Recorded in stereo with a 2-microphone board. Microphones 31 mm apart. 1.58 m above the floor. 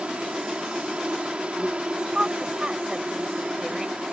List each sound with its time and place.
0.0 s an insect: 45° right (ahead or behind)
1.9 s a woman speaking: 25° right (ahead or behind)